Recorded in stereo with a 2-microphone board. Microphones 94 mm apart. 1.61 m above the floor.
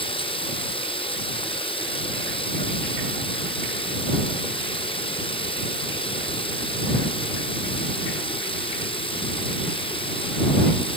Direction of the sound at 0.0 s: 85° left.